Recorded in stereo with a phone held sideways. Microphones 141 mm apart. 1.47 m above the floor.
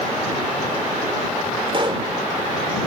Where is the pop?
40° right (ahead or behind).